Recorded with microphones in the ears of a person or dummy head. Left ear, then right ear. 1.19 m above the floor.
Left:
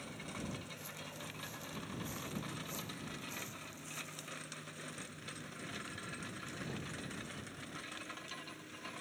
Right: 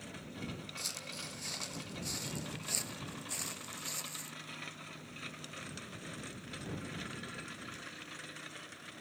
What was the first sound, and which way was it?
Footsteps, 40° right (ahead or behind).